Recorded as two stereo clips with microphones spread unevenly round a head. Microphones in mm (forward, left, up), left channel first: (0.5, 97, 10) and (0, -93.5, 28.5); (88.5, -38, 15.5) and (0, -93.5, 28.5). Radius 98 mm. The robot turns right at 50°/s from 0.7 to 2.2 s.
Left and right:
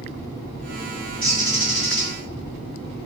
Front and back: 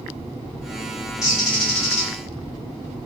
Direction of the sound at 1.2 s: 30° right.